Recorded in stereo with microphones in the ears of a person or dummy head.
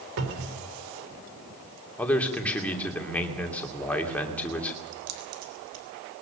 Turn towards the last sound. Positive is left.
turn(degrees=-85)